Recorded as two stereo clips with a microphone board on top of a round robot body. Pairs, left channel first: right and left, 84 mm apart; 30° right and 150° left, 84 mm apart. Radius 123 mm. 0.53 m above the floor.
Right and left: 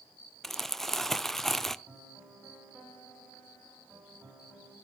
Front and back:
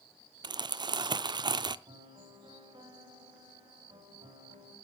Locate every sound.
0.4 s crumpling: 175° right, 0.6 m
1.9 s a piano: straight behind, 4 m